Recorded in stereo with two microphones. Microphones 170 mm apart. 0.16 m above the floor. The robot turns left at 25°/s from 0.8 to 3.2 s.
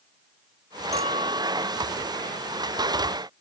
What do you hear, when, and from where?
0.9 s a clink: 35° right (ahead or behind); by 1.9 s 10° right (ahead or behind)